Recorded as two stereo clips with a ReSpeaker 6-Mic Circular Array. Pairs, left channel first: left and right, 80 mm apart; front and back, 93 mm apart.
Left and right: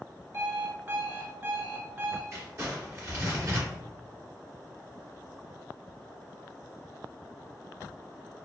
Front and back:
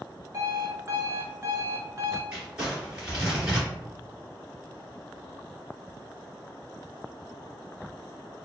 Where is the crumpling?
105° right, 2.0 m.